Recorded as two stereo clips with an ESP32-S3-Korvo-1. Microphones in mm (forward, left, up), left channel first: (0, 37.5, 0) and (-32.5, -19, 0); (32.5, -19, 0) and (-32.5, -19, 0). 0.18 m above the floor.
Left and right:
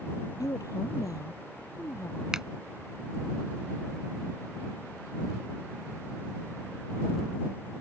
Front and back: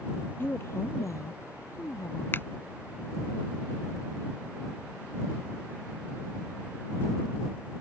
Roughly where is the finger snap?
Ahead right.